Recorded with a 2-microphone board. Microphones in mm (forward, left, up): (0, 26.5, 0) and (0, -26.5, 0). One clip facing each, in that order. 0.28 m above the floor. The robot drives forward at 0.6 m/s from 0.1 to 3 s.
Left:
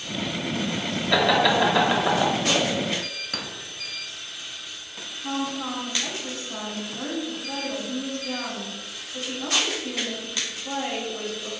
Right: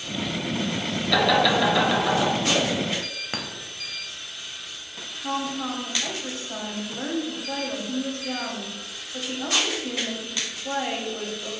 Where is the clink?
35° right (ahead or behind), 0.6 m.